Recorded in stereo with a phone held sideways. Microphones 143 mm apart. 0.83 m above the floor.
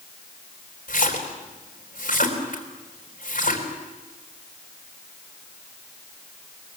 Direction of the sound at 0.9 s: 75° left (ahead or behind).